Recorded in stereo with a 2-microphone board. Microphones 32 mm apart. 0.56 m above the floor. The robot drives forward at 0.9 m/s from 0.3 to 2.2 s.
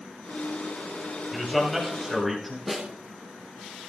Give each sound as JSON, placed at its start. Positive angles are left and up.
{"t": 1.3, "sound": "a man speaking", "side_deg": -5, "distance_m": 3.5}
{"t": 2.7, "sound": "a snare drum", "side_deg": -10, "distance_m": 4.5}